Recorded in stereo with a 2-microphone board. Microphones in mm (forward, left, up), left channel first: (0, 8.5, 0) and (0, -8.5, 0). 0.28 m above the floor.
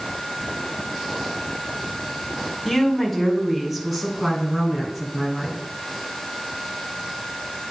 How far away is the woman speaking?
About 1.8 m.